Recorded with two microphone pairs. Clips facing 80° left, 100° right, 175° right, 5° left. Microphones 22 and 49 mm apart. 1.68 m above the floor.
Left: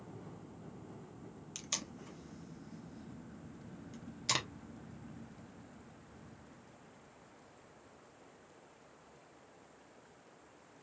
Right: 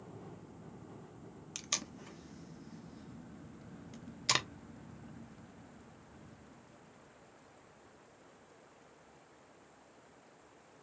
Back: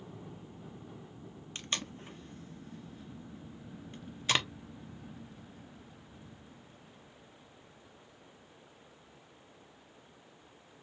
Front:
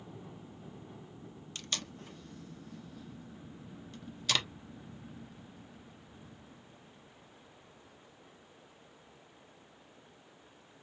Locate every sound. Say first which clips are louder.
1.6 s tape being pulled: right 3 dB, back 2 dB; 145° right, 0.7 m